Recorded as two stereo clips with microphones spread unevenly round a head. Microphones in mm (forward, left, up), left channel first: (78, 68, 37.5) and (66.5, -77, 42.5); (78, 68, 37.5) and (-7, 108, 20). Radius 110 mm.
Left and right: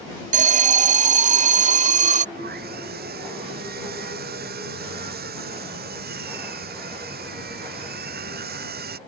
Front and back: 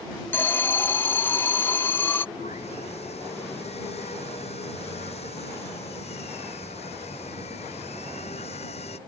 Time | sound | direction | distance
0.3 | an alarm | 105° right | ?
2.4 | sawing | 85° right | ?